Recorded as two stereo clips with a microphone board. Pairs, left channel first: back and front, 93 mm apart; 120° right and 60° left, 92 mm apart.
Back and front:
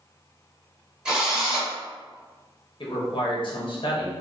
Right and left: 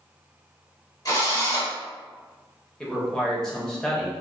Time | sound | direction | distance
1.1 | a drill | 80° right | 0.9 m
2.8 | a man speaking | 155° left | 0.7 m